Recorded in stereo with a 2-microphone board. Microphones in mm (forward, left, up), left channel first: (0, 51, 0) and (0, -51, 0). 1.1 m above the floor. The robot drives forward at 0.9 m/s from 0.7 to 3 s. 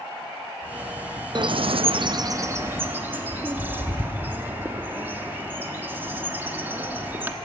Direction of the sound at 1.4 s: 45° right (ahead or behind).